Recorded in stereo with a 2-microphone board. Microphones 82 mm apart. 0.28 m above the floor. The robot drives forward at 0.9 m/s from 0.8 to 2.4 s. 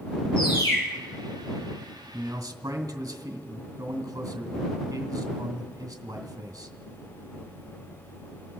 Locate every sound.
0.4 s a bird: 80° left, 5.5 m
2.1 s a man speaking: 45° right (ahead or behind), 2 m; by 6.8 s 50° right (ahead or behind), 2.0 m